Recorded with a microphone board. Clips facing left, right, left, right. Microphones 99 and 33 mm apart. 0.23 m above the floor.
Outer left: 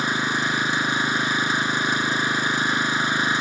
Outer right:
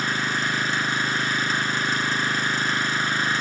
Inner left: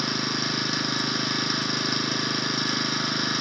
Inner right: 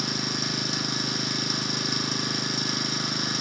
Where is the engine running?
15° left (ahead or behind), 1.3 m.